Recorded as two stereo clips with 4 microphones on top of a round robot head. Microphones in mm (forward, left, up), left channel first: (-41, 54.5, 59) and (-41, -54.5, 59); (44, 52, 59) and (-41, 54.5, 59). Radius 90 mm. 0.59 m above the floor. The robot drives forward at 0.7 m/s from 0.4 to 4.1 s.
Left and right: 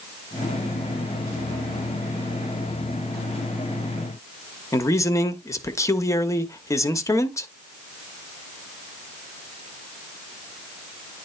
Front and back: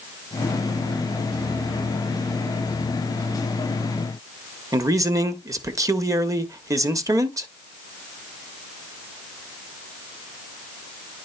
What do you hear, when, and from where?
4.7 s a man speaking: 145° left, 1.2 m